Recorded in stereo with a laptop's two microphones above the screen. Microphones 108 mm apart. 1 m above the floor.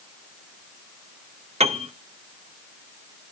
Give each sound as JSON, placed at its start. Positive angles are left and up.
{"t": 1.6, "sound": "a piano", "side_deg": -80, "distance_m": 0.7}